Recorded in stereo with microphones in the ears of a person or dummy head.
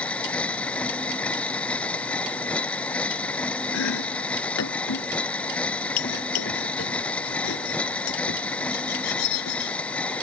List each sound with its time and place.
0.0 s a machine running: 5° left (ahead or behind)
3.7 s chopping: 80° left